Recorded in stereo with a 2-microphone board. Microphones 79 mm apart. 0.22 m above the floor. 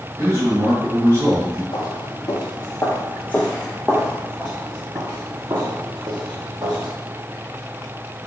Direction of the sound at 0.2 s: 30° right (ahead or behind).